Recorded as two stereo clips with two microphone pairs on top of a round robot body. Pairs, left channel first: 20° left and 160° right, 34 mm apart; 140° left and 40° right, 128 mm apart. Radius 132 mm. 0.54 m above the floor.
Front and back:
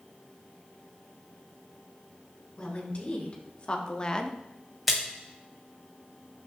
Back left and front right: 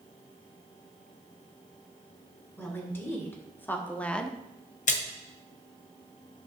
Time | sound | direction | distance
2.6 | a woman speaking | 70° left | 2.5 m
4.9 | a splash | 115° left | 1.6 m